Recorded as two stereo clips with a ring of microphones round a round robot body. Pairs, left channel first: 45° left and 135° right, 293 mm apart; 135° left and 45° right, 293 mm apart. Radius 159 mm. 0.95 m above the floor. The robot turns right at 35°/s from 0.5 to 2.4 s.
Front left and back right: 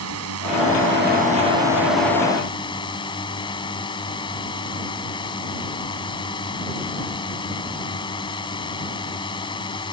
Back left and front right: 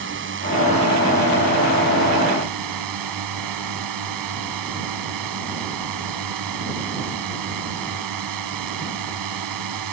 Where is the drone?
95° right; by 9.9 s 30° right.